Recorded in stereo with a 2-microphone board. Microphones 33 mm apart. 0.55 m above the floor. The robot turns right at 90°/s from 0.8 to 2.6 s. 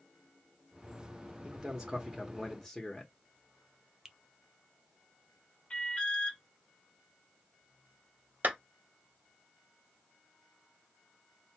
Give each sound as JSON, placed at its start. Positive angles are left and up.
{"t": 1.4, "sound": "a man speaking", "side_deg": -20, "distance_m": 0.9}
{"t": 4.0, "sound": "a finger snap", "side_deg": -15, "distance_m": 0.5}
{"t": 5.7, "sound": "an alarm", "side_deg": 35, "distance_m": 1.9}
{"t": 8.4, "sound": "a clap", "side_deg": -65, "distance_m": 1.2}